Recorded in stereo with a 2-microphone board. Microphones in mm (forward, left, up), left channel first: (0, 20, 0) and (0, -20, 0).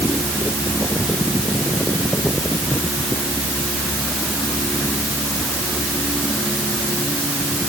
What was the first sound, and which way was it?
Only background noise.